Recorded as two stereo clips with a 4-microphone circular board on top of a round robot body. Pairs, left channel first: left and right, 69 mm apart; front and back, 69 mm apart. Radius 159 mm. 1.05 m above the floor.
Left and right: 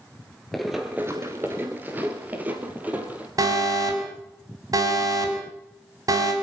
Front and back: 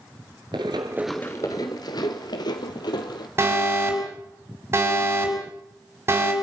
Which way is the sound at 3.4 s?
125° right.